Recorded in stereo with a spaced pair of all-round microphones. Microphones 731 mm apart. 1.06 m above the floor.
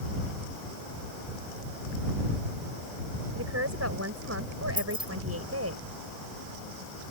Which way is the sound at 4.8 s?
15° left (ahead or behind).